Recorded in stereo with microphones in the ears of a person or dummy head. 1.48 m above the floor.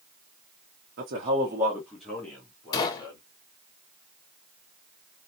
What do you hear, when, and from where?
1.0 s a man speaking: 50° right (ahead or behind), 0.7 m; by 3.2 s 20° left (ahead or behind), 2.5 m
2.7 s a gunshot: 25° left (ahead or behind), 0.7 m